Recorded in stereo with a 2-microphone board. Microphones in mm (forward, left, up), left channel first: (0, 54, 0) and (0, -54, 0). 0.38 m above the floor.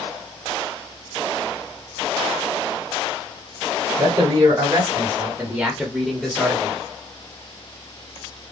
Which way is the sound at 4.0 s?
45° right (ahead or behind).